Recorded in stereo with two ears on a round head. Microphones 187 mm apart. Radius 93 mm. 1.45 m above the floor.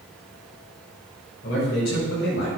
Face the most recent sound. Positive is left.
turn(degrees=55)  # may be behind; listen again after turning